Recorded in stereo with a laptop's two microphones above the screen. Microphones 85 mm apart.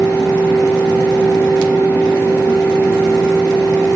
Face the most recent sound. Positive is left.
turn(degrees=25)  # may be behind; listen again after turning